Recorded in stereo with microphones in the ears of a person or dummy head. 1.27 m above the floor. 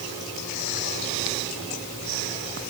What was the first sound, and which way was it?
Only background noise.